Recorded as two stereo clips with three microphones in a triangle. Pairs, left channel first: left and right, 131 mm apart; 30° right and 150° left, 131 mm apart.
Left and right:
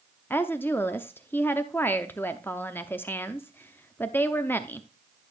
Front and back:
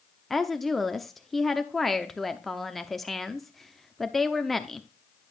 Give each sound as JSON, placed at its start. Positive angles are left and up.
{"t": 0.3, "sound": "a woman speaking", "azimuth_deg": 60, "distance_m": 0.6}